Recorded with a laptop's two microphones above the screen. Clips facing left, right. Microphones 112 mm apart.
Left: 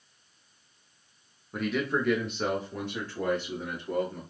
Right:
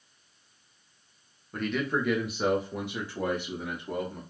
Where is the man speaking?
5° left (ahead or behind), 0.6 m; by 4.2 s 15° right (ahead or behind), 1.7 m.